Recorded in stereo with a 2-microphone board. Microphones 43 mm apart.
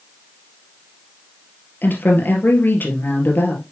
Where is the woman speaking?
50° left (ahead or behind), 2.5 m.